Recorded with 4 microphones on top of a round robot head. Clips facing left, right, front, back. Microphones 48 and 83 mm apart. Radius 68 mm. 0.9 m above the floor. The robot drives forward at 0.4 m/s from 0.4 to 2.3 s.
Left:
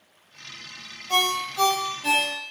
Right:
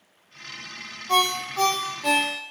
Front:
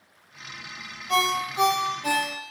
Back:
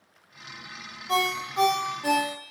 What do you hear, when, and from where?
1.1 s a ringtone: 130° right, 0.6 m; by 2.3 s 155° right, 1.0 m